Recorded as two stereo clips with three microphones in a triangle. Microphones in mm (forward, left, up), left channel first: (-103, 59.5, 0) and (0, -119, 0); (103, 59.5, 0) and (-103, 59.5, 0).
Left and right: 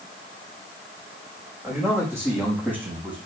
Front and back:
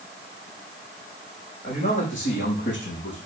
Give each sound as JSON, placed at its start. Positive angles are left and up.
{"t": 1.6, "sound": "a man speaking", "azimuth_deg": 15, "distance_m": 6.0}